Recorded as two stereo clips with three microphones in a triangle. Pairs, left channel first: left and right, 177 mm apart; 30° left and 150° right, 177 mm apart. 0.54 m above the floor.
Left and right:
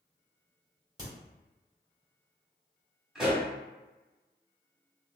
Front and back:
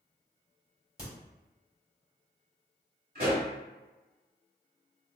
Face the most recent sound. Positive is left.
turn(degrees=180)